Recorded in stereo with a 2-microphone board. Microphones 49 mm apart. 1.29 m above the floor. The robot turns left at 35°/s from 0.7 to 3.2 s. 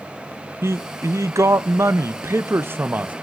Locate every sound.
0.6 s a man speaking: 60° right, 0.5 m; by 3.1 s 145° right, 0.5 m